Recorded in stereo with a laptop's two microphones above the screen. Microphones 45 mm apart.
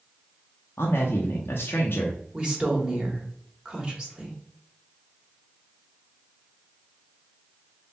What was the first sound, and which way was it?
A man speaking, 55° left (ahead or behind).